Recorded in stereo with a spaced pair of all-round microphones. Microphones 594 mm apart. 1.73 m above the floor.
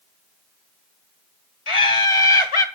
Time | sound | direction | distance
1.7 | laughter | 55° left (ahead or behind) | 1.4 m